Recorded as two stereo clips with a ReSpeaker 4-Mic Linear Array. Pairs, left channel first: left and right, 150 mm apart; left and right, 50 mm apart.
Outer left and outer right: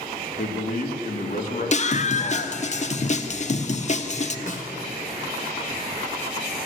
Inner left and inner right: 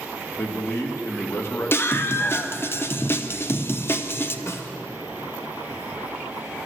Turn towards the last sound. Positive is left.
turn(degrees=55)  # may be behind; listen again after turning